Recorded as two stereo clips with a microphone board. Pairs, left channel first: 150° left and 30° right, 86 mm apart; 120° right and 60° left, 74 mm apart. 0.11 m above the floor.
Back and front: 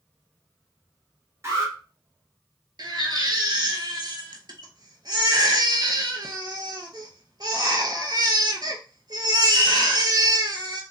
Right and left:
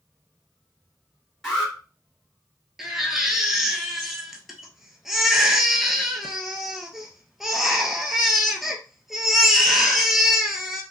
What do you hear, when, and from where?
1.4 s an alarm: 35° right, 2 m
2.8 s a baby crying: 25° right, 0.7 m